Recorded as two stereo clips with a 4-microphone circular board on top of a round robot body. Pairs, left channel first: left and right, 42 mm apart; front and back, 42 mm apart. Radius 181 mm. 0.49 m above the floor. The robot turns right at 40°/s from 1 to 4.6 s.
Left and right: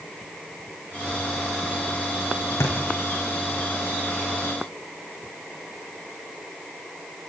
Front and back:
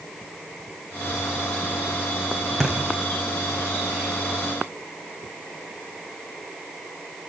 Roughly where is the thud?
Left.